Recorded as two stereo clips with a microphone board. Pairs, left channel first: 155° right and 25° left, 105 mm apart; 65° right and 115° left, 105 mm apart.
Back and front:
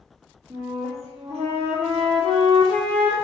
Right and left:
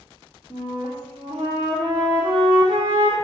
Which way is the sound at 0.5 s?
10° left.